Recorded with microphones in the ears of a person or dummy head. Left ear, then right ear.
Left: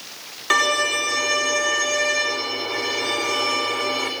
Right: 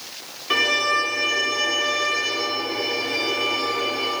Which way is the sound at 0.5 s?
50° left (ahead or behind).